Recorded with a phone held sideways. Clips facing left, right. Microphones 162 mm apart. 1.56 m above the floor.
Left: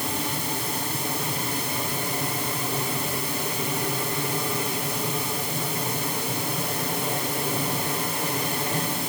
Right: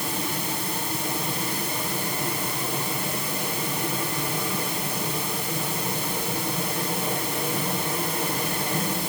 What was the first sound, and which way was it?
Only background noise.